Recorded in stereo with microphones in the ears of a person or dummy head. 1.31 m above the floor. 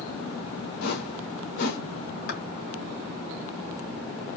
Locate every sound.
0.8 s a whoosh: 60° left (ahead or behind), 1.9 m
2.3 s a clap: 60° left (ahead or behind), 3 m